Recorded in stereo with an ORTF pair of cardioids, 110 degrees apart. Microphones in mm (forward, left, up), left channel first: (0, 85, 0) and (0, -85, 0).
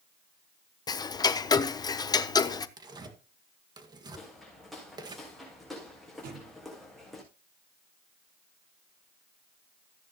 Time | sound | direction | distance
0.9 | ticking | 25° left | 0.9 m
2.8 | tearing paper | 25° right | 2 m
4.2 | footsteps | straight ahead | 5.5 m
6.2 | a thud | 60° right | 8.5 m